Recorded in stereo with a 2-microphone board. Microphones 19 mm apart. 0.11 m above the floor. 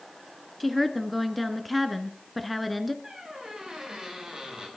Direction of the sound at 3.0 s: 35° right (ahead or behind).